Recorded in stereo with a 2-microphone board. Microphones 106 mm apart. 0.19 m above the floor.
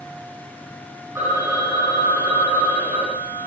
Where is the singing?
No singing in this recording.